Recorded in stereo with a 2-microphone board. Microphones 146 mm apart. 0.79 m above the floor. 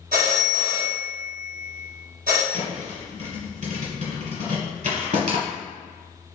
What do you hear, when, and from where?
0.1 s a phone ringing: 80° right, 0.7 m
2.5 s a thud: 65° right (ahead or behind), 1.4 m